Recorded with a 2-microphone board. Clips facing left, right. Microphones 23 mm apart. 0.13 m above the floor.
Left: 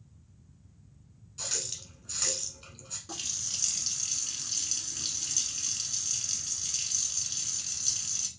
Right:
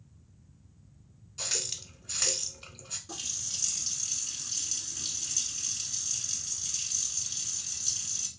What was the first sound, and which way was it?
A running tap, 15° right (ahead or behind).